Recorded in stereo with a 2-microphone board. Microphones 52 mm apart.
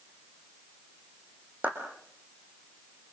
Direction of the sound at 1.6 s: 25° right (ahead or behind).